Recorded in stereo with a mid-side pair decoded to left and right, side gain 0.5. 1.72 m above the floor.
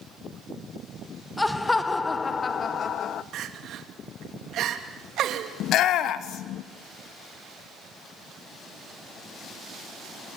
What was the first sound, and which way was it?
Laughter, 15° left.